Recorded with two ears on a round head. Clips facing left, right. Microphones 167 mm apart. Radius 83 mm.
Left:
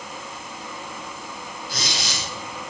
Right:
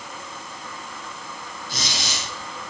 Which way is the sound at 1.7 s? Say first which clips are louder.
Even; 20° right (ahead or behind).